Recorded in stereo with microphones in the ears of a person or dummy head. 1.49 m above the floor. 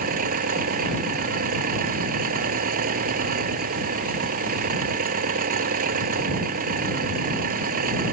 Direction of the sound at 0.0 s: 45° right (ahead or behind).